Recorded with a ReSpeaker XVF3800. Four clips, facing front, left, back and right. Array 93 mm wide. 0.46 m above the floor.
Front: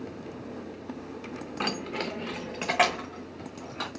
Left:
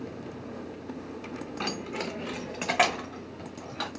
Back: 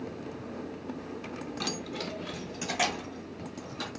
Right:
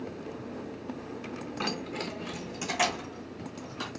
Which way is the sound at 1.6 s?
5° right.